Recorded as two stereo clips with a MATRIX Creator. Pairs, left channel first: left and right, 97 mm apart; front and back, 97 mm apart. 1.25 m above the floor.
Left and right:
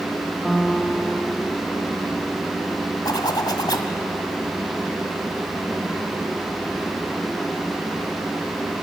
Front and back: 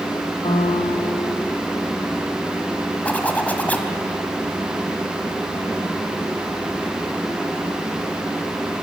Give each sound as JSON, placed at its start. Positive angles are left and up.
{"t": 0.4, "sound": "a piano", "azimuth_deg": 0, "distance_m": 1.1}
{"t": 3.0, "sound": "a zipper", "azimuth_deg": 70, "distance_m": 1.5}